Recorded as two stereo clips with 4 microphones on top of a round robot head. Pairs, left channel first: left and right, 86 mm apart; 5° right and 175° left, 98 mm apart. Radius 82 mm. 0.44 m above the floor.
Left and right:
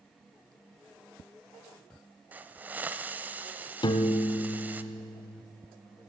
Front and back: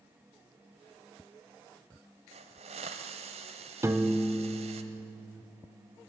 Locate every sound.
2.3 s a hiss: 160° right, 0.7 m
3.8 s a piano: 115° left, 0.8 m